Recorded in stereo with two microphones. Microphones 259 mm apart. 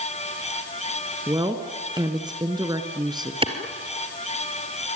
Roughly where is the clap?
Right.